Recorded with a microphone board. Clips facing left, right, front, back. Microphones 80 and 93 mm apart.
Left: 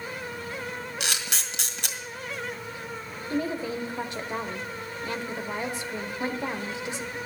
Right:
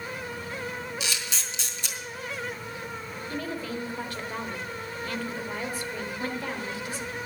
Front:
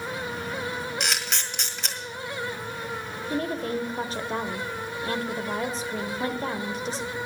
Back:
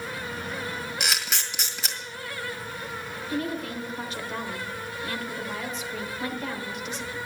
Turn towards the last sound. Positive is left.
turn(degrees=30)